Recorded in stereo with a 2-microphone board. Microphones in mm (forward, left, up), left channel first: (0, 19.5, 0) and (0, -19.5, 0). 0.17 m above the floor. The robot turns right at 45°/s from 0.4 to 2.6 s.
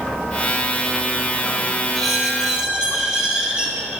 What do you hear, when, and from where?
1.9 s a squeak: 165° left, 1.9 m; by 4.0 s 165° right, 1.9 m